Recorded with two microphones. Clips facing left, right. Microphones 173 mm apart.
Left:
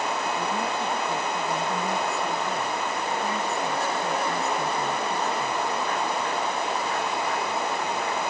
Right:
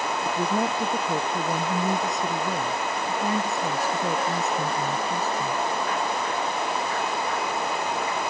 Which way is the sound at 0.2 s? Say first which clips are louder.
Right 3 dB; 40° right (ahead or behind).